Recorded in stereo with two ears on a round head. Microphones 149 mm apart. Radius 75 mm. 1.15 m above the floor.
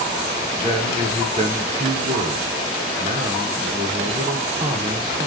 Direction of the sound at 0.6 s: 25° right (ahead or behind).